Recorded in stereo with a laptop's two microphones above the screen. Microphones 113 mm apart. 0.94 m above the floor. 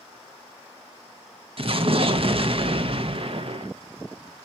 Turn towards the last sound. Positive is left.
turn(degrees=-50)  # may be behind; listen again after turning